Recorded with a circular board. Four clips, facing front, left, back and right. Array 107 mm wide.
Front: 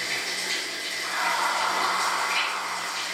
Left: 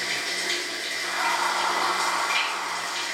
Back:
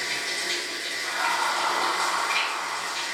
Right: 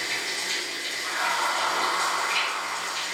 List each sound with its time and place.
0.0 s running water: 105° left, 0.9 m
1.0 s laughter: 20° left, 1.2 m